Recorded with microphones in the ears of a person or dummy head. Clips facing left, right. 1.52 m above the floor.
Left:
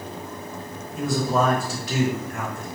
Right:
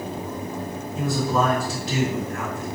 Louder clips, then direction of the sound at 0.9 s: Even; 50° left (ahead or behind).